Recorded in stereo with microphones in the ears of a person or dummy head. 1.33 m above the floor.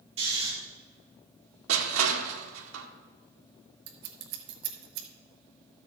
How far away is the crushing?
About 1.6 m.